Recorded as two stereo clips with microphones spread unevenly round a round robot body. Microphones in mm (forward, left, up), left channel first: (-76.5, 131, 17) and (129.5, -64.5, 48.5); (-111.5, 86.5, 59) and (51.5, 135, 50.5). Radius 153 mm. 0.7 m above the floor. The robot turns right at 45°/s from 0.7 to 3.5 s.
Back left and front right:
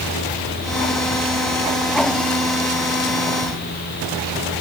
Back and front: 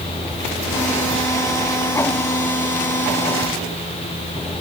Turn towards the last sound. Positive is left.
No sound to turn to.